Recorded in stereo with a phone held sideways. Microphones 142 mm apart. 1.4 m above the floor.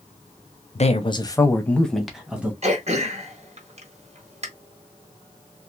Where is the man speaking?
50° left (ahead or behind), 0.7 m; by 2.5 s 10° right (ahead or behind), 1.3 m.